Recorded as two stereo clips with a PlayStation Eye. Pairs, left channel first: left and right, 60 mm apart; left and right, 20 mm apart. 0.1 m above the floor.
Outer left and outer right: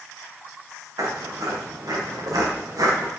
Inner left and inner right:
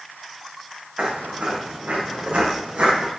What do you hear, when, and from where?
1.0 s footsteps: 85° right, 5 m; by 3.1 s 75° right (ahead or behind), 5 m